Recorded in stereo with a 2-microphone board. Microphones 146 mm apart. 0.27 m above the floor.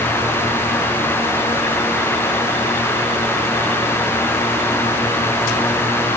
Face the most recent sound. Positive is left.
No sound to turn to.